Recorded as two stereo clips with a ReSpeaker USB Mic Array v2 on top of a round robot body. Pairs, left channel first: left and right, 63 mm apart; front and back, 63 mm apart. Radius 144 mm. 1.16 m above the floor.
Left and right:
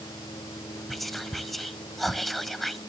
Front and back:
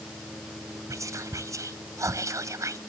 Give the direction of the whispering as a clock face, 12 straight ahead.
6 o'clock.